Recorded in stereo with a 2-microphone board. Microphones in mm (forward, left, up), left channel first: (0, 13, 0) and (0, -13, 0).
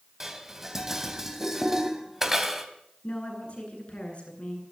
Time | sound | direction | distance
0.2 | dishes clattering | 15° right (ahead or behind) | 3 m
3.0 | a woman speaking | 45° left (ahead or behind) | 9.5 m